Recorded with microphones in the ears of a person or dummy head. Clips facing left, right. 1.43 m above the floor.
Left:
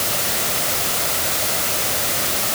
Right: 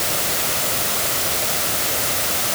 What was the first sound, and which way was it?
Only background noise.